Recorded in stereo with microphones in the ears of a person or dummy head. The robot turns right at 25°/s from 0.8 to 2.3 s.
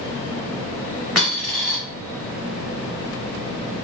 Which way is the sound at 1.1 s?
Centre (ahead or behind).